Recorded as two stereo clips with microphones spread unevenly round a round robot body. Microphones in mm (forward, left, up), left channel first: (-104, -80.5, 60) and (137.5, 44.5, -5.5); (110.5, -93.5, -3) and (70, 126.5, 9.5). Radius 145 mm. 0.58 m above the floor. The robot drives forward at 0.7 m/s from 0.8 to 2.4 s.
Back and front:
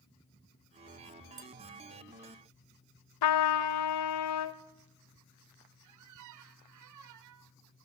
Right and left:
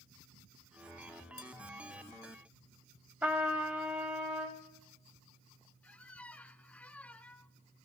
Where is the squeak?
5° left, 0.8 m.